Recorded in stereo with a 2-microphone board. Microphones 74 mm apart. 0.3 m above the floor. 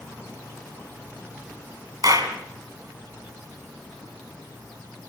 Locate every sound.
2.0 s a clap: 55° right (ahead or behind), 2.5 m